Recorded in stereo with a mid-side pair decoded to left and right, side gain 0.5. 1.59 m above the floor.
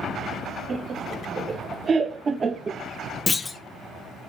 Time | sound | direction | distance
0.7 | laughter | 45° right | 2 m
3.3 | a clunk | 25° left | 0.9 m